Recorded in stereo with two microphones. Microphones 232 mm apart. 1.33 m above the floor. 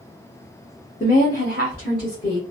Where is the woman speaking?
35° left (ahead or behind), 0.8 m; by 2.4 s 45° left (ahead or behind), 1.6 m.